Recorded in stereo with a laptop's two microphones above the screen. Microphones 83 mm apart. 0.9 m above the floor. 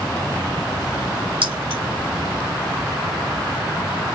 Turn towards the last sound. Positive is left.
turn(degrees=-75)  # may be behind; listen again after turning